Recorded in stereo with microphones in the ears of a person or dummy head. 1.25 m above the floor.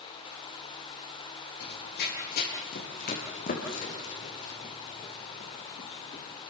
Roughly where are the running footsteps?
Left.